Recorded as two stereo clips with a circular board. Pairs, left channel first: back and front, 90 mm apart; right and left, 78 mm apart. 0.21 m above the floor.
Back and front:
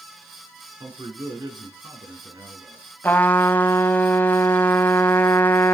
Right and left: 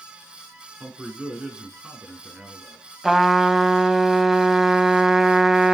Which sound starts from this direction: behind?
A trumpet, at 3.0 s.